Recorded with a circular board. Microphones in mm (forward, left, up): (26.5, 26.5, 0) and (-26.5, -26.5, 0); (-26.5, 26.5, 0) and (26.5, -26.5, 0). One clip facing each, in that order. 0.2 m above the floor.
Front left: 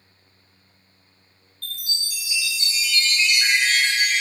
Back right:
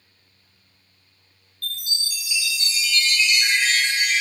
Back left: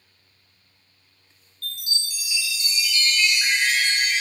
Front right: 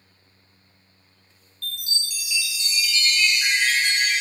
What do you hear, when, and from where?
1.6 s a chime: 90° left, 1.1 m